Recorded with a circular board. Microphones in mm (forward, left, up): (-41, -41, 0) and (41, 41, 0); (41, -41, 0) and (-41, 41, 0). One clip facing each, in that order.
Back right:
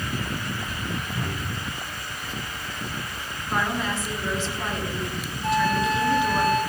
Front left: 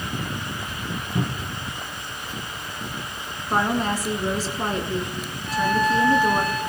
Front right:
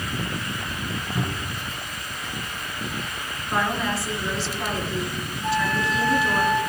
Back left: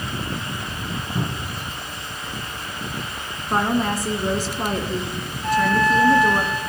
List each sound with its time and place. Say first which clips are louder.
1.1 s a cupboard door: front left 3 dB, back left 1 dB; 55° left, 3 m
3.5 s a woman speaking: front left 4 dB, back left 4 dB; 95° left, 2.5 m
5.4 s a flute: front left 1 dB, back left 6 dB; 130° right, 10 m